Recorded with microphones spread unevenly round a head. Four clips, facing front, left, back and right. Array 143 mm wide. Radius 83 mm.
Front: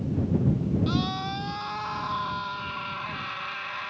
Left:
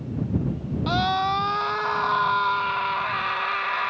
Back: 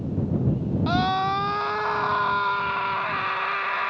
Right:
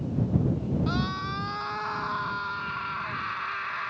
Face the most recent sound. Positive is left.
turn(degrees=145)